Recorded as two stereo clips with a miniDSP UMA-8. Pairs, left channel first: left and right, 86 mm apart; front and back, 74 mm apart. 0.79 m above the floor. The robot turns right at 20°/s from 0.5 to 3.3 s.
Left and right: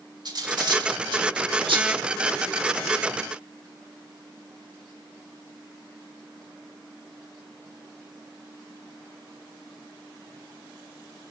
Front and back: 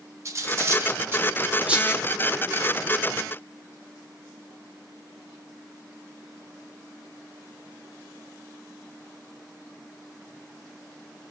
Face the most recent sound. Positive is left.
turn(degrees=-70)